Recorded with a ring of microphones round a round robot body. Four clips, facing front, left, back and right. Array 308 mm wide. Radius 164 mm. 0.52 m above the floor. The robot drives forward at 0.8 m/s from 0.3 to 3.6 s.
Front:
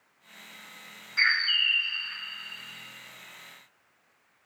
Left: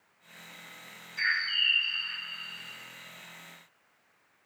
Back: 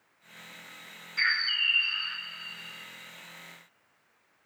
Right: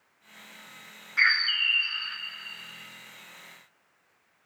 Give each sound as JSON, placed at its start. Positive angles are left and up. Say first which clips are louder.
{"t": 1.2, "sound": "a bird", "louder": "right 5 dB, front 3 dB", "azimuth_deg": -75, "distance_m": 0.7}